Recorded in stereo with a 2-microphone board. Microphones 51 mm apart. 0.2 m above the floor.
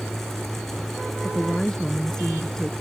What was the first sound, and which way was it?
A woman speaking, 10° left (ahead or behind).